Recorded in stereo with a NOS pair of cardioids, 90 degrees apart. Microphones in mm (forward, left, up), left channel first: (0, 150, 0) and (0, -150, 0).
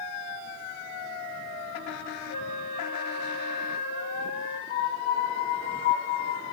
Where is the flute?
70° left, 1.4 m.